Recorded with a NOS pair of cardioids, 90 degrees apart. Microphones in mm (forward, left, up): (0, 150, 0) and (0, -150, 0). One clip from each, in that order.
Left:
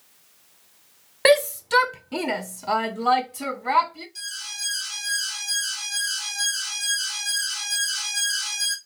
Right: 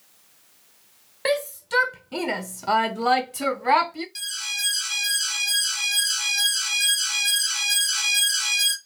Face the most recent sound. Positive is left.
turn(degrees=-55)